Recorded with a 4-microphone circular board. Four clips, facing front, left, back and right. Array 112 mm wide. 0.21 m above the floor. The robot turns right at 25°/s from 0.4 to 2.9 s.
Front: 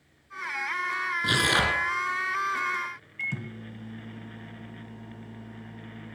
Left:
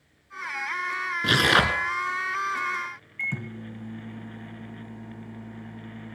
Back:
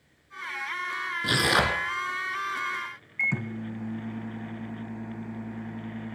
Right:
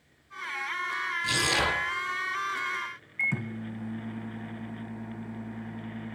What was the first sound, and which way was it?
Tearing paper, 95° left.